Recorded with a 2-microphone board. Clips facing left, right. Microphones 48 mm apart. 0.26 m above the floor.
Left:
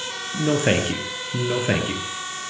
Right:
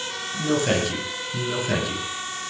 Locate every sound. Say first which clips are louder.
0.3 s a man speaking: left 2 dB; 40° left (ahead or behind), 6 m